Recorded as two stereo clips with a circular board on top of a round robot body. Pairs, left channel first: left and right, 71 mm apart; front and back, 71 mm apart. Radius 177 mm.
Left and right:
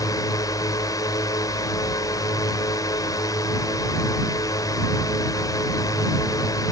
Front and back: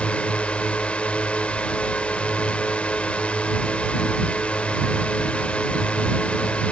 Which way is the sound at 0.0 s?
70° left.